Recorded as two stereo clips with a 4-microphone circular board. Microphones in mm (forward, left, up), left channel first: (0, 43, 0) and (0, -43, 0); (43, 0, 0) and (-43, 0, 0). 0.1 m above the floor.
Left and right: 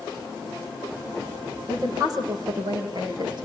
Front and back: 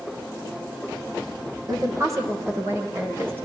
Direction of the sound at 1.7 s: 135° right.